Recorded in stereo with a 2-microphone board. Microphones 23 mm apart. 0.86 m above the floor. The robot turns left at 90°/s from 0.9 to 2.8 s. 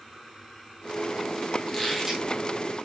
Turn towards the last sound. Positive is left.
turn(degrees=-80)